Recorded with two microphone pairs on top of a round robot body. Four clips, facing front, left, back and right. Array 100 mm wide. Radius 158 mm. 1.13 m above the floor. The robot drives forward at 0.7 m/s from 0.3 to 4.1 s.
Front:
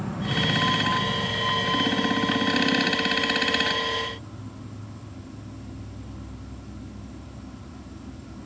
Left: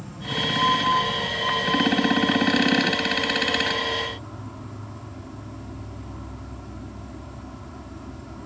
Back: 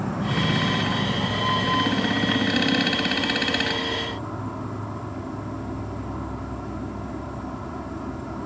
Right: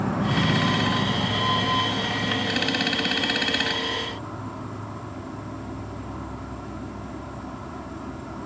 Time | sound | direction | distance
0.0 | an insect | 105° right | ?